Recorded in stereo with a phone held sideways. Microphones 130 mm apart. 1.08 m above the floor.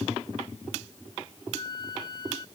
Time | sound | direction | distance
1.5 | a flute | 35° left (ahead or behind) | ?